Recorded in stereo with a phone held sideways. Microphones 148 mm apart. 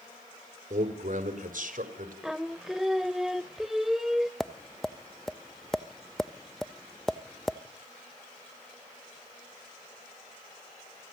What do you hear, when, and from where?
0.7 s a man speaking: 65° right (ahead or behind), 3.5 m; by 2.1 s 70° right (ahead or behind), 4 m
2.2 s singing: 5° right (ahead or behind), 0.6 m
4.4 s tapping: 5° left (ahead or behind), 0.7 m